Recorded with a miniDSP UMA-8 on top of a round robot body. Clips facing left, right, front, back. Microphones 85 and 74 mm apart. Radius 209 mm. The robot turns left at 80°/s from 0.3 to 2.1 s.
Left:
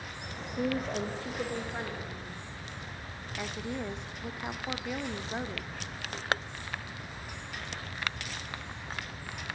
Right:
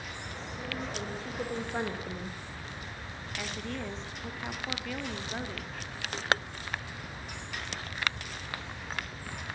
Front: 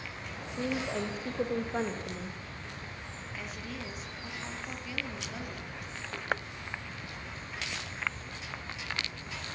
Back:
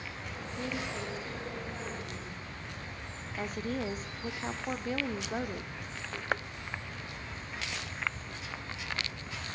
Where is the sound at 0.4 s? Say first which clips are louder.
Left 8 dB, front 4 dB; 90° left, 2.5 m; by 2.4 s 50° right, 2.5 m.